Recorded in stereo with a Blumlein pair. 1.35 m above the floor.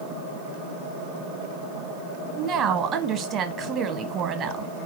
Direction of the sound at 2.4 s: 30° right.